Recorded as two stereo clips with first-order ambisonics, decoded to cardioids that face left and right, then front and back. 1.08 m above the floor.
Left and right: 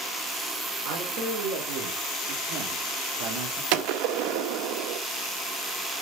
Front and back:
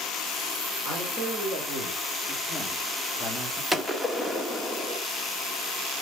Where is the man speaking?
105° right, 4 m; by 3.6 s 65° right, 2.5 m.